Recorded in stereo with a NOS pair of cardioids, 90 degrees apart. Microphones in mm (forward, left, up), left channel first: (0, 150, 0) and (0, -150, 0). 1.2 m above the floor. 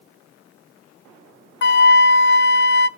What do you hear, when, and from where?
1.6 s a flute: 40° left, 0.6 m